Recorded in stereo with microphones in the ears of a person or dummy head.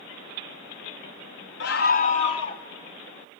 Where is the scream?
65° left (ahead or behind), 1.0 m; by 2.6 s 25° left (ahead or behind), 1.5 m.